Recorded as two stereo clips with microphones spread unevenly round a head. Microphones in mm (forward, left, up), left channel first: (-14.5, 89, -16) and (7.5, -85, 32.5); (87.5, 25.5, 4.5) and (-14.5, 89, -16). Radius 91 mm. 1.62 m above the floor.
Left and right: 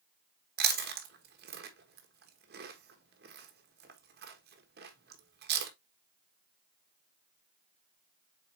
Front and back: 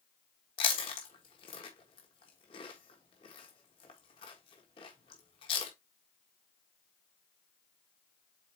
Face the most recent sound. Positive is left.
turn(degrees=-80)